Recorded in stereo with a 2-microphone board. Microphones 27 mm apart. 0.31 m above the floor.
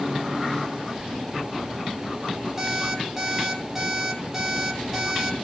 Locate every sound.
2.6 s an alarm clock: 15° right (ahead or behind), 7.5 m